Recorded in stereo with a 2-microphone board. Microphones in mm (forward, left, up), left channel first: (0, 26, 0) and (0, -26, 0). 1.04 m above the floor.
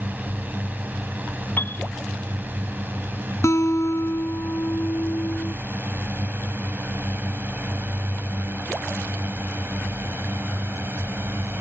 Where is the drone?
35° right (ahead or behind); by 11.6 s 50° right (ahead or behind).